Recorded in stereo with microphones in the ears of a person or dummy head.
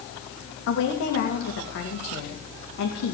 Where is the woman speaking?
70° left (ahead or behind), 2.5 m.